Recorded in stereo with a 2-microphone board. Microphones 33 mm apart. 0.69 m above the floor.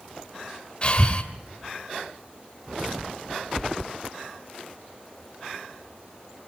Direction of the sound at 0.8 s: 35° left (ahead or behind).